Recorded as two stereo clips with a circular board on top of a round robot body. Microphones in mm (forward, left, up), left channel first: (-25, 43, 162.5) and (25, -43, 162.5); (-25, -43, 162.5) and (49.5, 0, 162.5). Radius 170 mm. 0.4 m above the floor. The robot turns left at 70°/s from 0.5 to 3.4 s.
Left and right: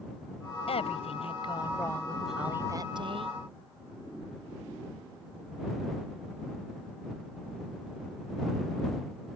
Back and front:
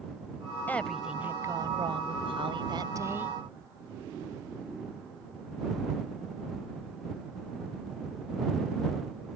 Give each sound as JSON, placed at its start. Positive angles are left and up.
{"t": 0.7, "sound": "a woman speaking", "azimuth_deg": 140}